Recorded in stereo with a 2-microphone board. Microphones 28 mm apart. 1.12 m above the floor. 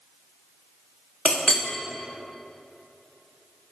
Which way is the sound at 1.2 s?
45° left (ahead or behind).